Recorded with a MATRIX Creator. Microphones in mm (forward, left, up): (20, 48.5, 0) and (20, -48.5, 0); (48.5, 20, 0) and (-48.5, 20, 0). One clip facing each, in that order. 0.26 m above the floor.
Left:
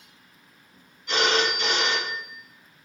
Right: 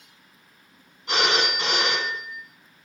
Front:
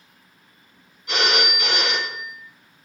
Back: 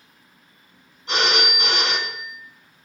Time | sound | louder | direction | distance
1.1 | a phone ringing | left 1 dB, even | 130° right | 1.8 m